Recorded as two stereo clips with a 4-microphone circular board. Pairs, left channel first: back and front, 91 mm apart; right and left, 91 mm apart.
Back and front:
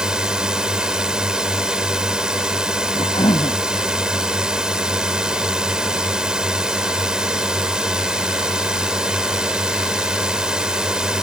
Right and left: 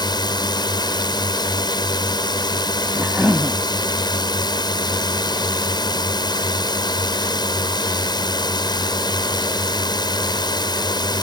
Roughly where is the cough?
Behind.